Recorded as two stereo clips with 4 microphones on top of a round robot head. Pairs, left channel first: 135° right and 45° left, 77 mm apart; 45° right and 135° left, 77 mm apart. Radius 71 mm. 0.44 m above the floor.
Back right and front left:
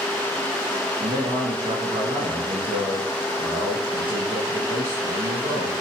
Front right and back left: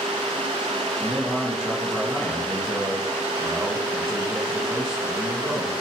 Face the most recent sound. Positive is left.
turn(degrees=50)